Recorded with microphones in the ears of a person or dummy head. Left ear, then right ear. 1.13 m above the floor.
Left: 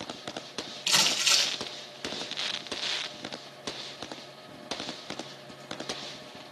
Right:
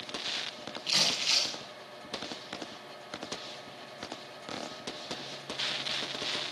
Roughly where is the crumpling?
Left.